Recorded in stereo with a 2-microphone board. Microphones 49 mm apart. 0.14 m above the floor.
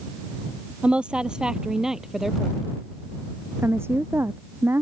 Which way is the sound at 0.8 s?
25° right (ahead or behind).